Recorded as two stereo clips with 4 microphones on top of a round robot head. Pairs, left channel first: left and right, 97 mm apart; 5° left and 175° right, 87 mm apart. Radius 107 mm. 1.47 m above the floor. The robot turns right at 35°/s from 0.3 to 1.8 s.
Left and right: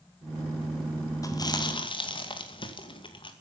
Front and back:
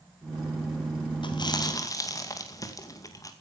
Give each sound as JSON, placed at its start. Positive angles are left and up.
{"t": 1.2, "sound": "chewing", "azimuth_deg": 35, "distance_m": 2.5}